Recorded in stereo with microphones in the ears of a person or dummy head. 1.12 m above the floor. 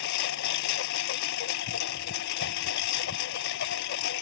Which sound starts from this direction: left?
A lawn mower, at 0.0 s.